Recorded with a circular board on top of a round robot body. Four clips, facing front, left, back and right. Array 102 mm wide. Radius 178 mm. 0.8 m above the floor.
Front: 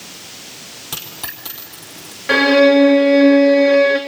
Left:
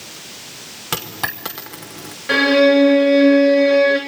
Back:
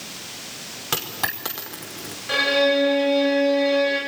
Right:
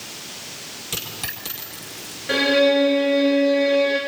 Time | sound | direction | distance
0.9 | a dropped coin | 120° left | 0.7 m
2.3 | a violin | 10° left | 0.6 m